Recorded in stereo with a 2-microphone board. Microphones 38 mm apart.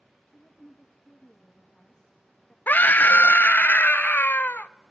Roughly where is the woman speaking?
Left.